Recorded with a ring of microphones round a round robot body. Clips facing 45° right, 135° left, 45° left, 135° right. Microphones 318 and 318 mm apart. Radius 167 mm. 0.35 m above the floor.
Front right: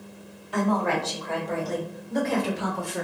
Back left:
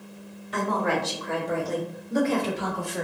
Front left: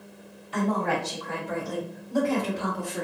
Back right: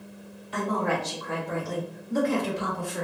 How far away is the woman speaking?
About 2.0 m.